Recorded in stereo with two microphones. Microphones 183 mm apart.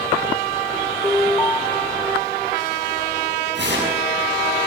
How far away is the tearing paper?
About 6 m.